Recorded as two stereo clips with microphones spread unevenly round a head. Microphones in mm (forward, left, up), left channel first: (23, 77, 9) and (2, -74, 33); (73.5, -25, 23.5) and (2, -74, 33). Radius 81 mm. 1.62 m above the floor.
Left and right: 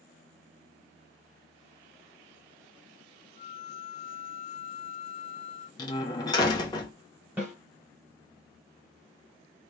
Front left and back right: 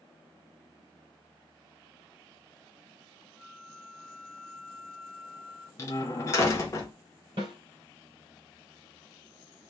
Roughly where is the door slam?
Ahead left.